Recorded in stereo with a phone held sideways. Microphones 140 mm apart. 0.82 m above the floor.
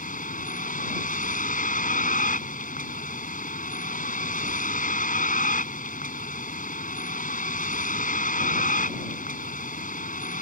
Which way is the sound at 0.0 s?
75° left (ahead or behind).